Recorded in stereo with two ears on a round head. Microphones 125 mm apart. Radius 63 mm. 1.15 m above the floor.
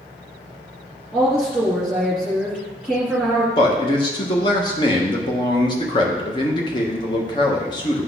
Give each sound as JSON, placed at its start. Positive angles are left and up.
{"t": 1.1, "sound": "a woman speaking", "side_deg": 5, "distance_m": 2.0}
{"t": 3.6, "sound": "a man speaking", "side_deg": 35, "distance_m": 1.2}